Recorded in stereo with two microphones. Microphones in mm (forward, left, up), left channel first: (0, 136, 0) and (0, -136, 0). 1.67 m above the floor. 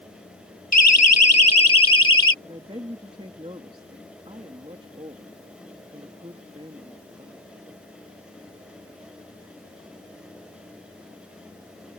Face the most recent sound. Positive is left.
turn(degrees=-20)  # may be behind; listen again after turning